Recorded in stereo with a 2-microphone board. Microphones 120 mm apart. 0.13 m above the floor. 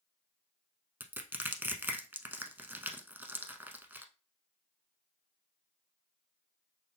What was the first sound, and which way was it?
Crushing, 15° right (ahead or behind).